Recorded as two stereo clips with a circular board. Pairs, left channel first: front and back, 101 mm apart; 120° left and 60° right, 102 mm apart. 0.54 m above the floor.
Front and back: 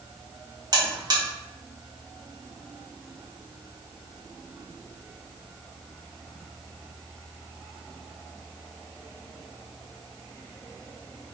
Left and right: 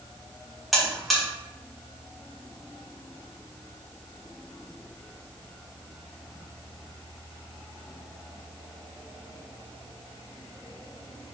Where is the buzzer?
150° right, 1.0 m.